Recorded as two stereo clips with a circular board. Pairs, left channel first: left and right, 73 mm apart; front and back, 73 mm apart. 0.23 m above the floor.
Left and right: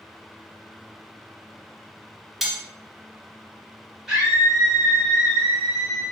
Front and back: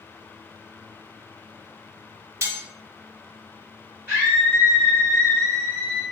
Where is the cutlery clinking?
175° right, 0.6 m.